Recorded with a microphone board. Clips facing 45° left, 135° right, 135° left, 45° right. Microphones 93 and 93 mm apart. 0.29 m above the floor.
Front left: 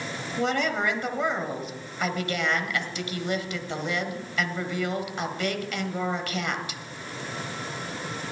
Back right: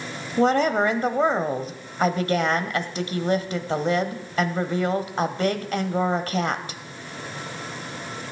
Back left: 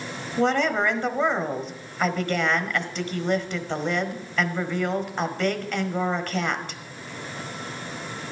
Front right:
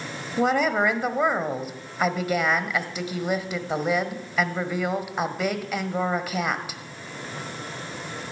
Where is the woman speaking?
120° right, 1.2 m.